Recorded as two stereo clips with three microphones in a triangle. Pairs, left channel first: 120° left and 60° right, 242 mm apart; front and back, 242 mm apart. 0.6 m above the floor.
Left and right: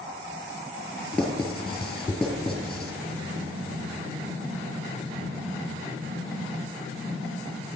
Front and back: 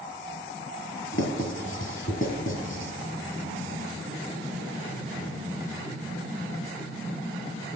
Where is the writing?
30° left, 2 m.